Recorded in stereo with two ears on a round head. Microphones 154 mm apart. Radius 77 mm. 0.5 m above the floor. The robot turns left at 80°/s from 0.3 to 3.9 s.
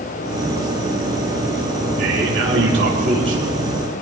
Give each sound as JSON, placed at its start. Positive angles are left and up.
{"t": 2.0, "sound": "a man speaking", "azimuth_deg": -45, "distance_m": 8.0}